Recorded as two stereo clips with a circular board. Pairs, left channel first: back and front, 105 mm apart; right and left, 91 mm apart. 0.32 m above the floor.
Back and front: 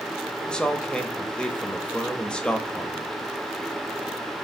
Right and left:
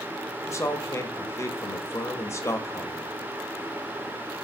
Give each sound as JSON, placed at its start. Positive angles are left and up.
{"t": 0.5, "sound": "a man speaking", "azimuth_deg": -105, "distance_m": 1.0}